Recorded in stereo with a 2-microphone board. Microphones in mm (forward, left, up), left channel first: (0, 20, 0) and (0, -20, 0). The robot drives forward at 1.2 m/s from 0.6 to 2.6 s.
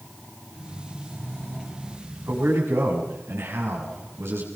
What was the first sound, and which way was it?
A man speaking, 85° right.